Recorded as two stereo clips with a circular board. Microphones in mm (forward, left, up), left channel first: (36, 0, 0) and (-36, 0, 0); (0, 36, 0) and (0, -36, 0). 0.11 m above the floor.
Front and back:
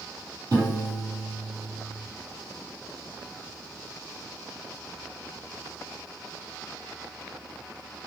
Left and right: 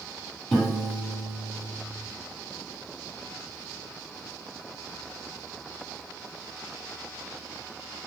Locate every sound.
0.5 s a piano: 170° left, 2.0 m